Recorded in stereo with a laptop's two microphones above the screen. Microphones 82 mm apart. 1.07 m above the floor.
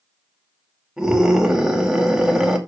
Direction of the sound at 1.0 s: 10° right (ahead or behind).